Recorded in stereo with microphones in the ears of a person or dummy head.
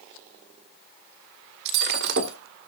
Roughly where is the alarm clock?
No alarm clock in this recording.